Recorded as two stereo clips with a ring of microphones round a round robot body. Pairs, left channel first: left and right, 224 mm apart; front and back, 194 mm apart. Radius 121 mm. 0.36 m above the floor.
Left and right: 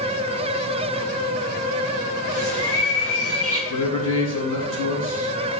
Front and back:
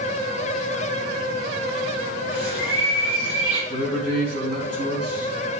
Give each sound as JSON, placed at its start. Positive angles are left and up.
{"t": 2.3, "sound": "a bird", "azimuth_deg": -40, "distance_m": 3.5}
{"t": 3.7, "sound": "a man speaking", "azimuth_deg": -65, "distance_m": 2.5}